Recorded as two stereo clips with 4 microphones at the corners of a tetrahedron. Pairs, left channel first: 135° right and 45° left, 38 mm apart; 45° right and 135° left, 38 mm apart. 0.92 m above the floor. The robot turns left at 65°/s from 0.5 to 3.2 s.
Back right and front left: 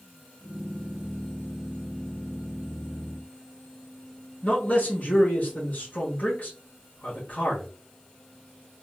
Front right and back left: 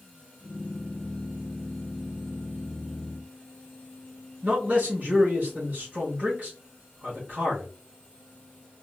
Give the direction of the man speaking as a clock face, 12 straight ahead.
6 o'clock.